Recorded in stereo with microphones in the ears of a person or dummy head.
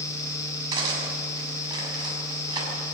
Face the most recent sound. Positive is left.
turn(degrees=-20)  # may be behind; listen again after turning